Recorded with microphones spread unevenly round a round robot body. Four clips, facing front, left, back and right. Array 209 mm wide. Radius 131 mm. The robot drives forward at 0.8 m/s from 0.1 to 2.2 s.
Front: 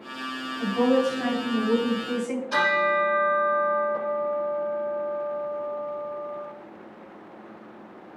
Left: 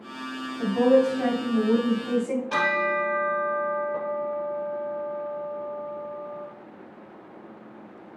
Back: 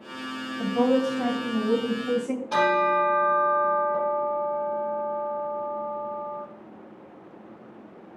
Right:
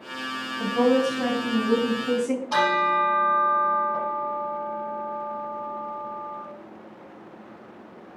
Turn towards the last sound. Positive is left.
turn(degrees=145)